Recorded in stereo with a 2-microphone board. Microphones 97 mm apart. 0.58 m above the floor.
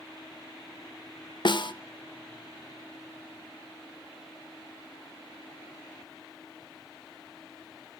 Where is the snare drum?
50° left (ahead or behind), 0.8 m.